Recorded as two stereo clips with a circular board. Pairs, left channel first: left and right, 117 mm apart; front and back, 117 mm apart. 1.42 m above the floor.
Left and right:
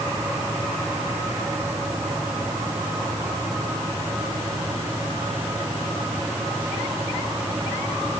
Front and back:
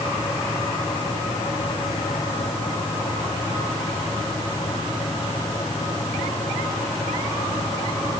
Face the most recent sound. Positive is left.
No sound to turn to.